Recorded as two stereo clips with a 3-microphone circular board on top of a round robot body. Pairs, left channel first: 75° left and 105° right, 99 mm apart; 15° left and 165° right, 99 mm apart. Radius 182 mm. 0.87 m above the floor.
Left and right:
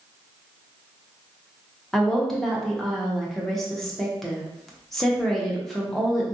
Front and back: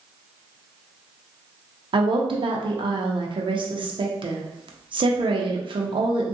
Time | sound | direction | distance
1.9 | a woman speaking | 165° left | 0.7 m